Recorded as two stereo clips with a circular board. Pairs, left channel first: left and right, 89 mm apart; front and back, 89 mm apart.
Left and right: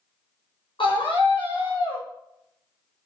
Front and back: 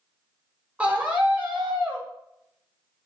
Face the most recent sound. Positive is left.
turn(degrees=105)